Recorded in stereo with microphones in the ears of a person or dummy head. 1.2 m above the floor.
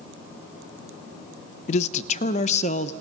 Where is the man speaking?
45° left (ahead or behind), 0.6 m.